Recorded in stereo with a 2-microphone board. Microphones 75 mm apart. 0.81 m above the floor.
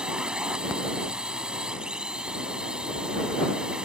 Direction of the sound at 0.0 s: 10° right (ahead or behind).